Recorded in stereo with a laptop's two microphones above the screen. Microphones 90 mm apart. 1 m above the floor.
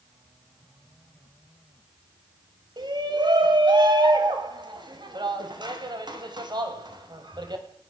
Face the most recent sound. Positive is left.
turn(degrees=-55)  # may be behind; listen again after turning